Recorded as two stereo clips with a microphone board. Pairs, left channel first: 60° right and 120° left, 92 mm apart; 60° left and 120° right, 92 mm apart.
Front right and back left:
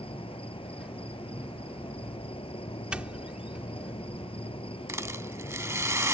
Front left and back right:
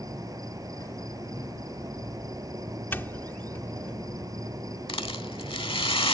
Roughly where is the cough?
I don't hear a cough.